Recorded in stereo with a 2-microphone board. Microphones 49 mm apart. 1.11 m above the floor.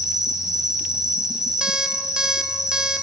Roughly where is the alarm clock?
Centre.